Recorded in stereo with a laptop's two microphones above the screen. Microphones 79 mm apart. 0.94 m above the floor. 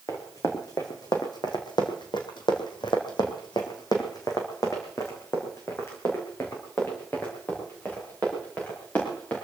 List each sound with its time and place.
0.1 s running footsteps: 45° left (ahead or behind), 3.5 m; by 9.4 s 20° left (ahead or behind), 6.5 m